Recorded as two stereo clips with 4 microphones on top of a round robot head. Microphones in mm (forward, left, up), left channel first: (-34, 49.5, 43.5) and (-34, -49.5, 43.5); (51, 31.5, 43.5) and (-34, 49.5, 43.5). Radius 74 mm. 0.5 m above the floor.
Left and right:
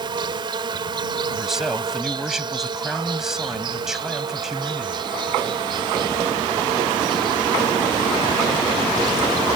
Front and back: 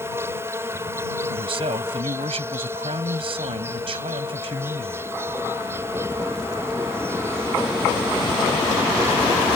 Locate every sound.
0.0 s an insect: 130° right
1.3 s a man speaking: 175° right